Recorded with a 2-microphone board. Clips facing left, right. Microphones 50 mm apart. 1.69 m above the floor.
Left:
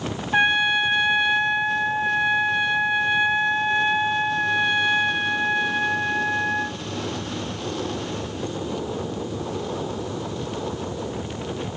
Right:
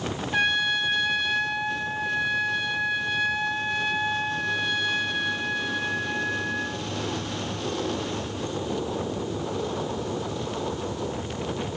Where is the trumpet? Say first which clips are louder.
Left 5 dB; 25° left (ahead or behind), 1.2 m.